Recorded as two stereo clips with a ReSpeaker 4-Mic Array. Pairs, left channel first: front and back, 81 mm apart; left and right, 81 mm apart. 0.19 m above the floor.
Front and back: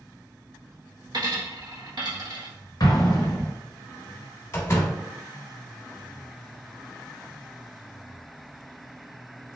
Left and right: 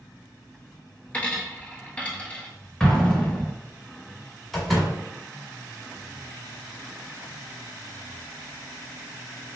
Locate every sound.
1.1 s a dropped coin: 160° left, 1.1 m
2.8 s an explosion: 15° left, 0.9 m
4.5 s a door slam: 5° left, 1.1 m